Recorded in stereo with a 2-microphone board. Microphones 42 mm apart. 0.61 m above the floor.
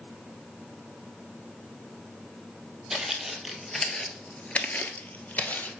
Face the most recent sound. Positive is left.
turn(degrees=45)  # may be behind; listen again after turning